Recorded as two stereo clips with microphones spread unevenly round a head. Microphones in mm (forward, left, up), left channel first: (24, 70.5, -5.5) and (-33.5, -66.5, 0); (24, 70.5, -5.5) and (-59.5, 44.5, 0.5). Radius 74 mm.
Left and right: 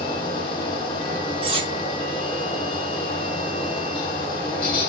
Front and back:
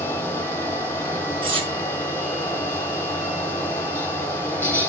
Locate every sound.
0.0 s a fan: 55° left, 0.9 m
1.4 s cutlery clinking: 165° right, 0.9 m